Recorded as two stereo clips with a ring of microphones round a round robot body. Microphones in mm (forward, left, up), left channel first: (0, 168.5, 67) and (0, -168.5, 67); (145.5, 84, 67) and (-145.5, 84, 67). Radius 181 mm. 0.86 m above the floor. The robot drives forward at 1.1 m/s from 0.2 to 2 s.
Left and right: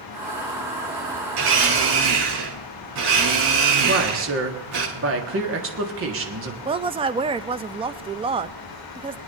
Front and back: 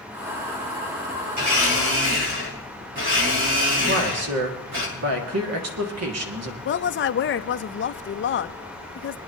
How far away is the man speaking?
About 1.9 m.